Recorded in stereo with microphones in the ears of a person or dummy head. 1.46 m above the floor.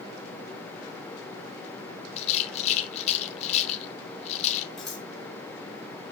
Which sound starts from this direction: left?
A rattle, at 2.2 s.